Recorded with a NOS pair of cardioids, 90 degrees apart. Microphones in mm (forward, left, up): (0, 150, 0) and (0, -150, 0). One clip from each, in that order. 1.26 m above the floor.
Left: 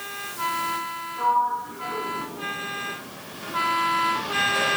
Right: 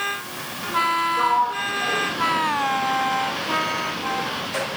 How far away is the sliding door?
About 0.6 m.